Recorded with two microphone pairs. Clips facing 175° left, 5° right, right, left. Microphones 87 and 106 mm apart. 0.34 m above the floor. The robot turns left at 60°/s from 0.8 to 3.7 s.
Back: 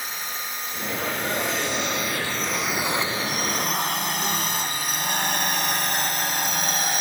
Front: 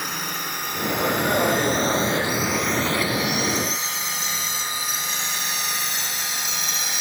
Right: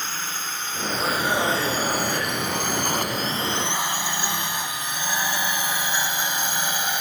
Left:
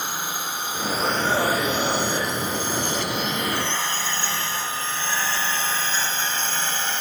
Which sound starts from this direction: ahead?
A drone, at 0.0 s.